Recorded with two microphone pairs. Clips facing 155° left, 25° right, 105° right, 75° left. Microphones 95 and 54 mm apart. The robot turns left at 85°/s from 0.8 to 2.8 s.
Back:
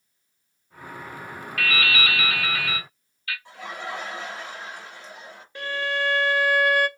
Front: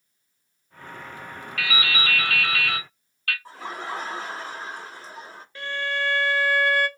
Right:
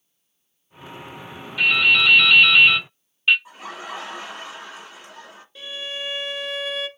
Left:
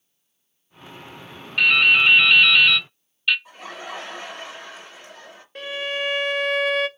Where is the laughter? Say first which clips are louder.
Front 1 dB, right 1 dB; 40° right, 1.6 m.